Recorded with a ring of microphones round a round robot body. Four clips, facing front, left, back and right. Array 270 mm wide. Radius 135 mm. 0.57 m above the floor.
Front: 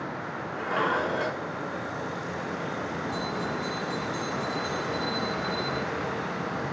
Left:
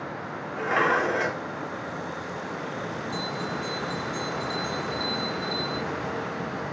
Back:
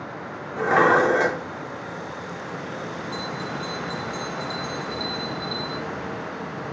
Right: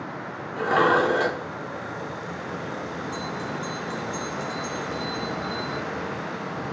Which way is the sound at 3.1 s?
140° right.